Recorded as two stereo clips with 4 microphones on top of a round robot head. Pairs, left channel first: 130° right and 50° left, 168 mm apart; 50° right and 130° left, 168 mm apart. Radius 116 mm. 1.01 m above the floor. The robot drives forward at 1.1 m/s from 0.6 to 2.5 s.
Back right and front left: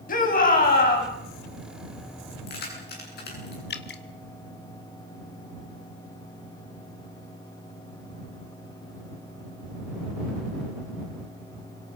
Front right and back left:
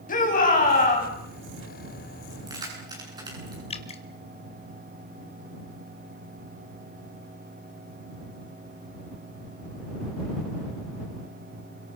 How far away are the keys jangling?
About 8.5 m.